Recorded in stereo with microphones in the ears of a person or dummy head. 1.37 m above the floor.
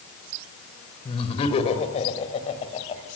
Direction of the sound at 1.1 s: 35° left (ahead or behind).